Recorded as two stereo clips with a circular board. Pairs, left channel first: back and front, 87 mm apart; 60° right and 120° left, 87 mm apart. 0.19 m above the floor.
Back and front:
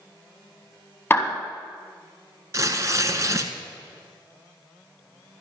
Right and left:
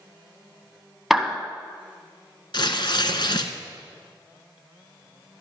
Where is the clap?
155° right, 1.3 m.